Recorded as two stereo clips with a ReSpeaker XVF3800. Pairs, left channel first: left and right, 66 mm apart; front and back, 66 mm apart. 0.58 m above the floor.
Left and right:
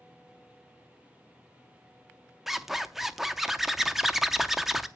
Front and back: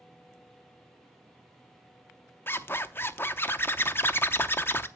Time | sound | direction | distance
2.5 | a zipper | 5° right | 0.6 m